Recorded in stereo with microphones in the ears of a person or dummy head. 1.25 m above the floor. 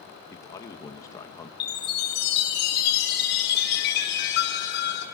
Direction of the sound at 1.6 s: 60° left (ahead or behind).